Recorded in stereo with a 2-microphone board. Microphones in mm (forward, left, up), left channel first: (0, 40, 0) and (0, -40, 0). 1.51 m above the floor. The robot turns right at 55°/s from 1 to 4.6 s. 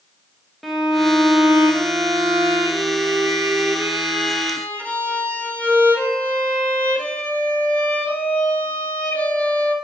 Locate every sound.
0.6 s a violin: straight behind, 0.9 m; by 9.8 s 15° left, 0.9 m